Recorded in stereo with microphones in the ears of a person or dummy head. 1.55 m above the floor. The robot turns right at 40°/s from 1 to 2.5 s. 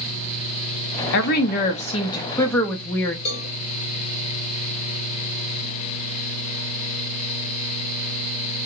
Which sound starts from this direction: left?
A cowbell, at 3.2 s.